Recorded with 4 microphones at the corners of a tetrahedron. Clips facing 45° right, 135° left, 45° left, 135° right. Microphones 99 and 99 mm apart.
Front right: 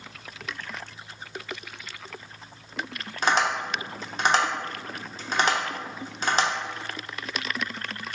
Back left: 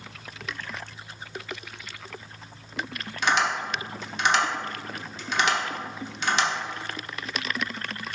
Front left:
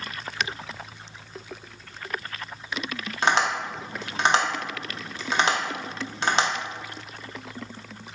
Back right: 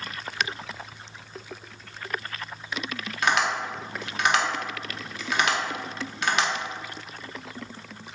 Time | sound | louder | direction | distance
3.2 | tapping | front right 1 dB, front left 1 dB | 5° right | 0.5 m